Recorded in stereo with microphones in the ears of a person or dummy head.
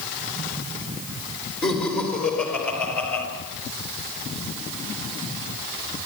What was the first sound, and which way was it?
Laughter, centre (ahead or behind).